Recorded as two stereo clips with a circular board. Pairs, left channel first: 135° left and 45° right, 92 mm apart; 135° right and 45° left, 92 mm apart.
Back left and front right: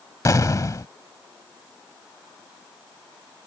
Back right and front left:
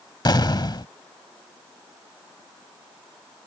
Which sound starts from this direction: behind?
An explosion, at 0.2 s.